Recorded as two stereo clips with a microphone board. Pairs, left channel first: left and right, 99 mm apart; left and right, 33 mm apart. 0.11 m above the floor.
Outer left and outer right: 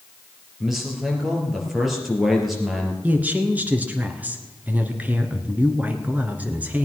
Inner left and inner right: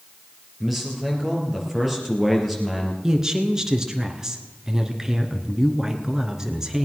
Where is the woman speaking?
15° right (ahead or behind), 1.3 m.